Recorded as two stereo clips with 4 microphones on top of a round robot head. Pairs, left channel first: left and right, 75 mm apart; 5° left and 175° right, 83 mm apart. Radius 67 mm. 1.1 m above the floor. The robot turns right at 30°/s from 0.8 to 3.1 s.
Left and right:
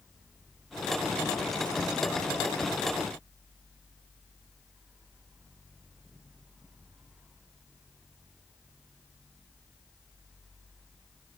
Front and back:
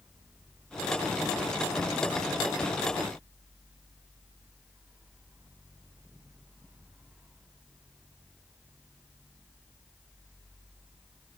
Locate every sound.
Only background noise.